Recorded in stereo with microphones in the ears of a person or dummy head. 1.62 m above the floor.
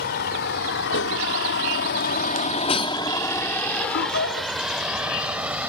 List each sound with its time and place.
0.0 s a vehicle: 55° left (ahead or behind); by 5.7 s 10° right (ahead or behind)
3.7 s laughter: 65° left (ahead or behind)